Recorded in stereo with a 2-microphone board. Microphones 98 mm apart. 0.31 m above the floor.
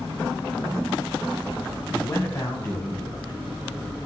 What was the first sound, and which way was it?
A man speaking, 35° left (ahead or behind).